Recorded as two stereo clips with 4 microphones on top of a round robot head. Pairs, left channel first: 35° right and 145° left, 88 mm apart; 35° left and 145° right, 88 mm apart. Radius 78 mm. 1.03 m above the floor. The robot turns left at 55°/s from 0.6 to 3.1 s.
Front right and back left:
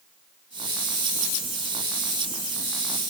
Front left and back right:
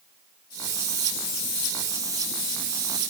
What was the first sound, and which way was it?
Only background noise.